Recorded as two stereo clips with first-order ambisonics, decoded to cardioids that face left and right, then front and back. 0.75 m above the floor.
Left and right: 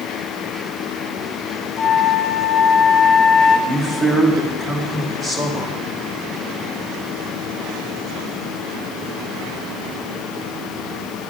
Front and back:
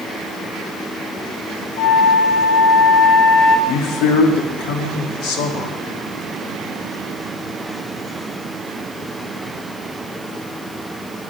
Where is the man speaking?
10° right, 1.5 m.